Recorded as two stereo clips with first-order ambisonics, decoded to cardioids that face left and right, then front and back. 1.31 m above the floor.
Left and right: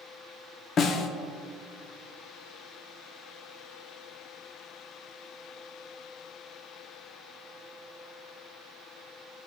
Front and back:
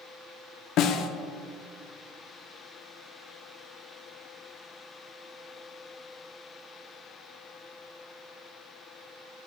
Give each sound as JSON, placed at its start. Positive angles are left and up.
{"t": 0.8, "sound": "a snare drum", "azimuth_deg": 35, "distance_m": 0.6}